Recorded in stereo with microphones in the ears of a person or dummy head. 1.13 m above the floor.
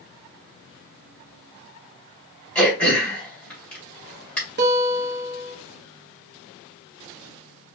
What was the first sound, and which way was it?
Throat clearing, 10° left (ahead or behind).